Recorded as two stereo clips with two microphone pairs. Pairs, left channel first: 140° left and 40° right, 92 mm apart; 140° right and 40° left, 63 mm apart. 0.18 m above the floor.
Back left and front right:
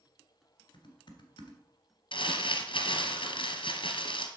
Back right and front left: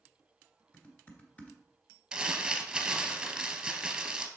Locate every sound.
0.7 s typing on a keyboard: 160° left, 1.6 m
2.1 s crumpling: 125° left, 1.1 m